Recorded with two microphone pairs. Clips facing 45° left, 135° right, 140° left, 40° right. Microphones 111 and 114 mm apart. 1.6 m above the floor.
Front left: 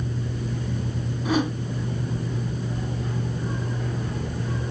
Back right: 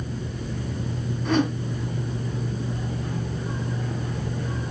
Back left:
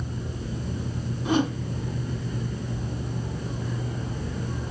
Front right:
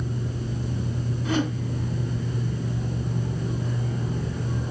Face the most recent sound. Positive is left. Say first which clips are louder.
# back right 1 dB, back left 2 dB
turn(degrees=115)